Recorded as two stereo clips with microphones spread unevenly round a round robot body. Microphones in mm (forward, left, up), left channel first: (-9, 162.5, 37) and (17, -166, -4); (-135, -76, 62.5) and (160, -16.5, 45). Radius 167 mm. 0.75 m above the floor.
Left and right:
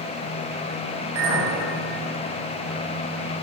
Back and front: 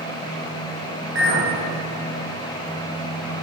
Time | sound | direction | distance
1.1 | a clink | 40° right | 4 m